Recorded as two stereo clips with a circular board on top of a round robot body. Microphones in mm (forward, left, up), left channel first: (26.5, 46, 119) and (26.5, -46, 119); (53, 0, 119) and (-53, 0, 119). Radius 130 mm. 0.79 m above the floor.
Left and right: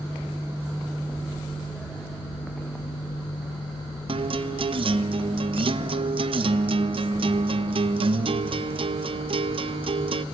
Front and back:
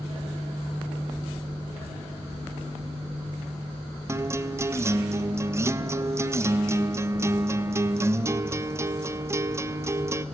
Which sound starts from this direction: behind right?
A guitar, at 4.1 s.